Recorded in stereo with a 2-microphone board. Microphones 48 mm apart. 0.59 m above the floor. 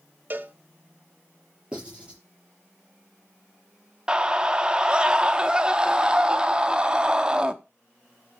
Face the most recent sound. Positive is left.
turn(degrees=-15)  # may be behind; listen again after turning